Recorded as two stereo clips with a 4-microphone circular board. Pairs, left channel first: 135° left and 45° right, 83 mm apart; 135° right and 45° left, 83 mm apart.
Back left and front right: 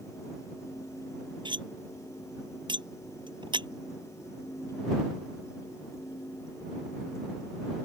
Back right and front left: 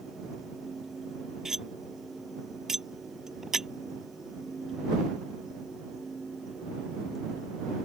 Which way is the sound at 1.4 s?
40° right.